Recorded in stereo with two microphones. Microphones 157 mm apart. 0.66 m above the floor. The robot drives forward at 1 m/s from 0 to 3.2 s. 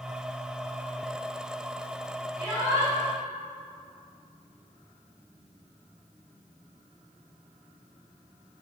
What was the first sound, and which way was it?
A shout, 10° right (ahead or behind).